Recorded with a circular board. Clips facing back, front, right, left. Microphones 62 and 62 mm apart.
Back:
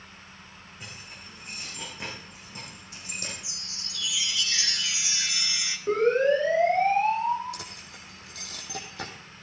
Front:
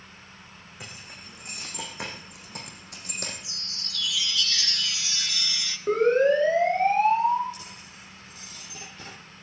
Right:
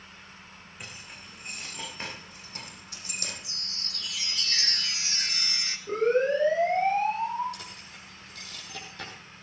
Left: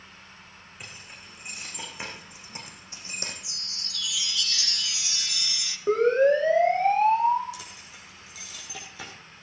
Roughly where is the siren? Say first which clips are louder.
Front 2 dB, left 4 dB; left.